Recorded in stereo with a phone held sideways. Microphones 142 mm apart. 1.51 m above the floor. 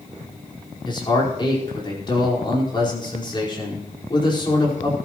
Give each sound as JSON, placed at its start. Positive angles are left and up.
{"t": 0.8, "sound": "a man speaking", "side_deg": 35, "distance_m": 4.5}